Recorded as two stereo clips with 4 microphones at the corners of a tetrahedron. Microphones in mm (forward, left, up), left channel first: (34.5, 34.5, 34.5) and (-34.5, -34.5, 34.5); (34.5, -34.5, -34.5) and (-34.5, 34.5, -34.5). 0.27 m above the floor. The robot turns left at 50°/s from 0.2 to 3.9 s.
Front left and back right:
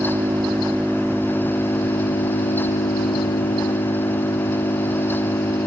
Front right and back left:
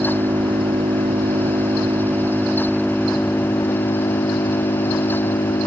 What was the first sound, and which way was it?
An engine running, straight behind.